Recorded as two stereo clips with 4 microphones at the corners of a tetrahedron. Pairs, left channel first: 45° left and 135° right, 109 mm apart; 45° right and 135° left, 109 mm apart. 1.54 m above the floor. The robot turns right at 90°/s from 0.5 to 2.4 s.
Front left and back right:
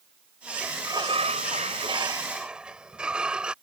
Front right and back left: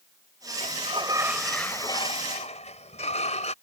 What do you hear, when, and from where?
0.6 s a sliding door: 145° left; by 3.5 s 55° right